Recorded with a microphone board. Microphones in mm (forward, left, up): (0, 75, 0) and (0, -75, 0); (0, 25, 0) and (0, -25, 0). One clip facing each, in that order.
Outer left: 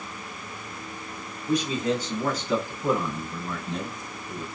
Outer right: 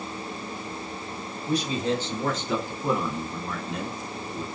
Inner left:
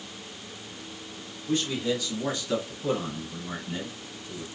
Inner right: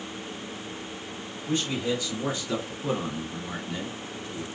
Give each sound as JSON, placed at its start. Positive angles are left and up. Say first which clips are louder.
{"t": 1.5, "sound": "a man speaking", "louder": "outer left 1 dB, even", "side_deg": -35, "distance_m": 2.0}